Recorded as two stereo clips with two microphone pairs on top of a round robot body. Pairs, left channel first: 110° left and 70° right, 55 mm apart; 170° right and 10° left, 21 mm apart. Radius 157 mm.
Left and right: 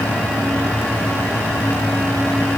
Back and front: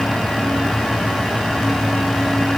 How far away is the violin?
No violin in this recording.